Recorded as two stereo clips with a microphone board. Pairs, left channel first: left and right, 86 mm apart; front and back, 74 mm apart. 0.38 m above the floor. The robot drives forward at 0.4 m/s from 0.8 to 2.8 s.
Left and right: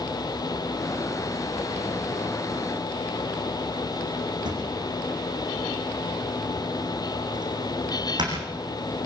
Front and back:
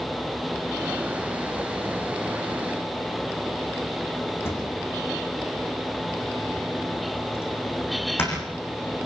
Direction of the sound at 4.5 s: 55° right.